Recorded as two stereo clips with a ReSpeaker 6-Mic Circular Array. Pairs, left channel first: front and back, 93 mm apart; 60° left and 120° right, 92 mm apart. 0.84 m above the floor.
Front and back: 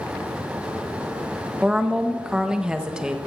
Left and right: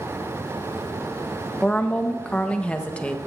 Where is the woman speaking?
115° left, 0.9 m.